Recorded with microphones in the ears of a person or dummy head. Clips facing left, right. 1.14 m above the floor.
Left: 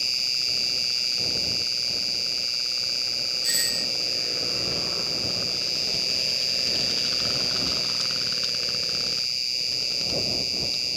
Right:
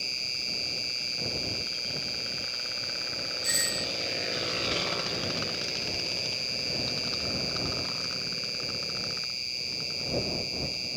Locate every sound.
0.0 s an insect: 20° left (ahead or behind)
3.4 s a doorbell: 5° right (ahead or behind)